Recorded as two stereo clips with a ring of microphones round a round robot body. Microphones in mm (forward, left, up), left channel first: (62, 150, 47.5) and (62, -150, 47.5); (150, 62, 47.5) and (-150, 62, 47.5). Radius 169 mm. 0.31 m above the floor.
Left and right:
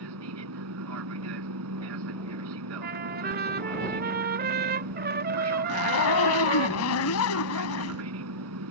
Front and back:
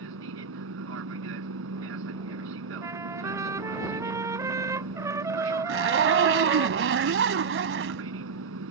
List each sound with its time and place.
0.0 s an aircraft: 130° right
2.8 s a trumpet: 110° right
5.7 s a zipper: 130° left